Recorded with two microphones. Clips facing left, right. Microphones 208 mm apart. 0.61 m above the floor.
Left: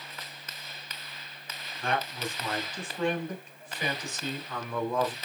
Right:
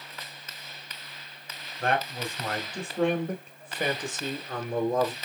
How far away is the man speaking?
About 3 m.